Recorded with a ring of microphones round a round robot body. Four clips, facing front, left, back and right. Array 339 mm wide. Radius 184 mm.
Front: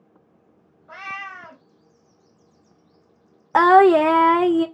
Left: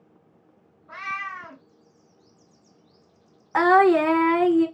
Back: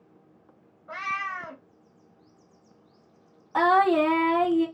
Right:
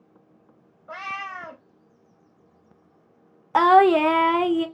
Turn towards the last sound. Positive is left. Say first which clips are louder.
# right 1 dB, front 8 dB
turn(degrees=-15)